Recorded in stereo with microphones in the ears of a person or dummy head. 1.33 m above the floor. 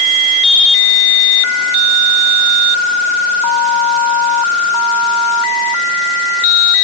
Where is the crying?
No crying in this recording.